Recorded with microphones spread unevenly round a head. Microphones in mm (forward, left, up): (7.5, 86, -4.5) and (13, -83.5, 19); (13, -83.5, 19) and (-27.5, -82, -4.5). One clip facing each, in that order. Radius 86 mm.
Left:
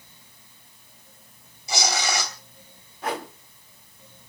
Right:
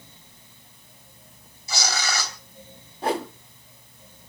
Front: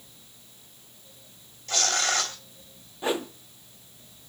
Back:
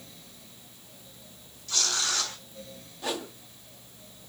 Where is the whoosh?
35° right, 1.3 m.